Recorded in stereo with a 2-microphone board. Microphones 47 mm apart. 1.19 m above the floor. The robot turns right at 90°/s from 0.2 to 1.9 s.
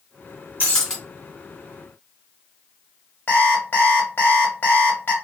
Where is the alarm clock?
45° left (ahead or behind), 0.9 m.